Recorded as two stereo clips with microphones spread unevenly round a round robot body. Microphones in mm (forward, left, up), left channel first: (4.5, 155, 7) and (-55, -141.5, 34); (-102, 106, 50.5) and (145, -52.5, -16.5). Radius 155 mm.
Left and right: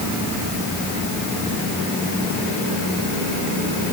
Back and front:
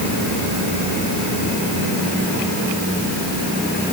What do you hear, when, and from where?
Only background noise.